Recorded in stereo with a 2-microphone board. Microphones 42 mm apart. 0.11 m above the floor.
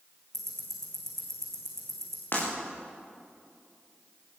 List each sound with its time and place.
0.3 s ticking: 10° left (ahead or behind), 6.5 m
2.3 s breaking glass: 50° left (ahead or behind), 9.5 m